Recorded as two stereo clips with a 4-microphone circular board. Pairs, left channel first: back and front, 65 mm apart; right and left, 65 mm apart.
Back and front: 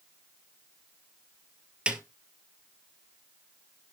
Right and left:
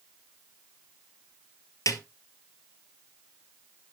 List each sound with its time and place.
1.9 s a snare drum: 70° right, 1.6 m